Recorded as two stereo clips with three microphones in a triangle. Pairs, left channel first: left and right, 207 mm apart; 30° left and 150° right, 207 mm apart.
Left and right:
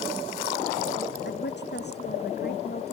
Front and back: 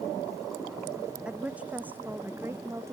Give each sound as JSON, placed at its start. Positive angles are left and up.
{"t": 1.2, "sound": "a woman speaking", "azimuth_deg": 125}